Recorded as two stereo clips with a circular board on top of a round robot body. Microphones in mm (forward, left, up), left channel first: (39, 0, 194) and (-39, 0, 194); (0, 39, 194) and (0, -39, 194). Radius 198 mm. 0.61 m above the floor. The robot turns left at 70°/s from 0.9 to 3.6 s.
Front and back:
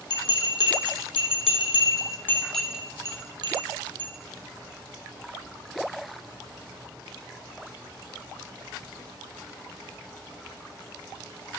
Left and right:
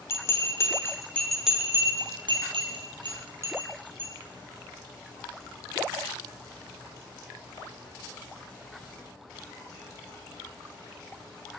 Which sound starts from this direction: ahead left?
A bell, at 0.1 s.